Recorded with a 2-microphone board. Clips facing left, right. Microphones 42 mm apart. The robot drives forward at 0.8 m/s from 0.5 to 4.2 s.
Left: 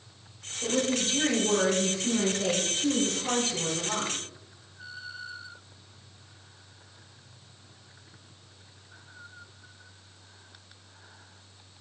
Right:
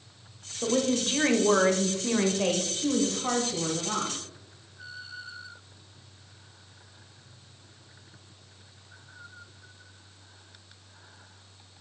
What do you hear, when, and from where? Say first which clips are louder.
0.6 s a woman speaking: right 2 dB; 40° right (ahead or behind), 1.6 m; by 4.2 s 30° right (ahead or behind), 2.5 m